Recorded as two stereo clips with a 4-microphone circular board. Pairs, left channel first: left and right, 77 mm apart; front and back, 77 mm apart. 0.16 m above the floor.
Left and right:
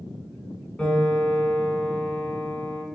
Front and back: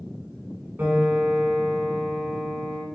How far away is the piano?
About 1.1 m.